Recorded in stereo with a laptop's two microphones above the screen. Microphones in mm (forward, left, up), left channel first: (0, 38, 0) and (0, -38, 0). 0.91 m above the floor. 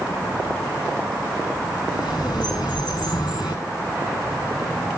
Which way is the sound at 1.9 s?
85° left.